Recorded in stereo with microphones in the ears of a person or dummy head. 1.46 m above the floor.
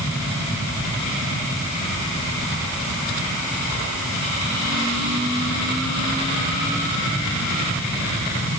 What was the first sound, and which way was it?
Only background noise.